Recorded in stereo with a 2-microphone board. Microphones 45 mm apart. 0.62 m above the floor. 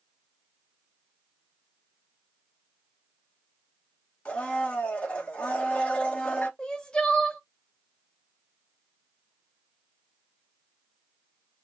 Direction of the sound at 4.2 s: 25° left (ahead or behind).